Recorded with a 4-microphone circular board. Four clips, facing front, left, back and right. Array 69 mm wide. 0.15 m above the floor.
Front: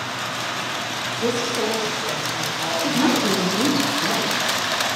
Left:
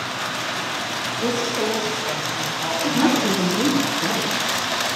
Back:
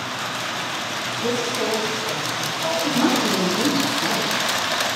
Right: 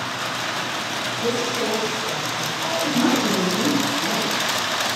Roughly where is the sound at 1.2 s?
Ahead left.